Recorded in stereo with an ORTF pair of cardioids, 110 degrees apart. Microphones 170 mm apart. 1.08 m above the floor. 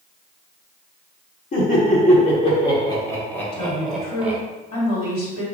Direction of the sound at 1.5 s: 50° left.